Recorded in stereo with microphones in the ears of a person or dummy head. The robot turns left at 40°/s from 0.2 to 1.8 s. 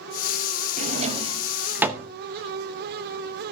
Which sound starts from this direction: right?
A drawer, at 0.8 s.